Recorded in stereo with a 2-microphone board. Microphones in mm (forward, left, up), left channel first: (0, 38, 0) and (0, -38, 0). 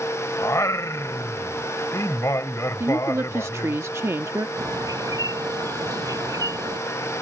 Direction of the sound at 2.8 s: 35° right (ahead or behind).